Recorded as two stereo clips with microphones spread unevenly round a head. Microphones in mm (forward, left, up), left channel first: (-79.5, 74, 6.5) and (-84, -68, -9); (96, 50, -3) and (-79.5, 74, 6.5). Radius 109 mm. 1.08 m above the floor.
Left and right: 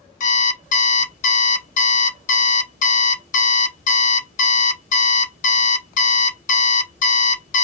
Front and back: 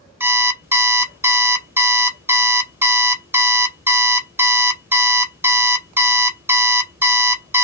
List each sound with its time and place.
0.2 s an alarm clock: 95° left, 0.7 m